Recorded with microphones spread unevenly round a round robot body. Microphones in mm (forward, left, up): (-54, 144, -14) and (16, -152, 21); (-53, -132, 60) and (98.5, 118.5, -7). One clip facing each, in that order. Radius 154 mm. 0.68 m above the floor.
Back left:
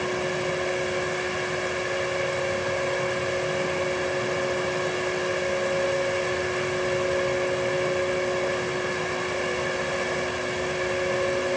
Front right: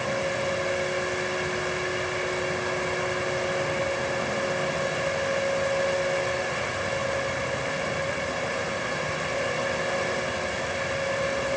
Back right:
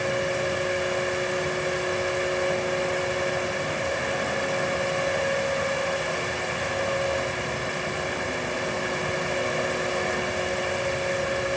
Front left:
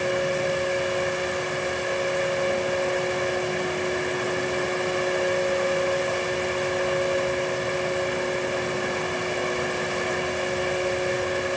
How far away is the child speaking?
No child speaking in this recording.